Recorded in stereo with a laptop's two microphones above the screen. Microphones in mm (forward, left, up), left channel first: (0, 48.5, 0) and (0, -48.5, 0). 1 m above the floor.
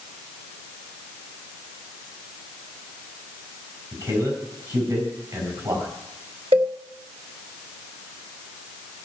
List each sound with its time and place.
3.9 s a man speaking: 50° right (ahead or behind), 7 m
6.5 s a cowbell: 85° right, 1.2 m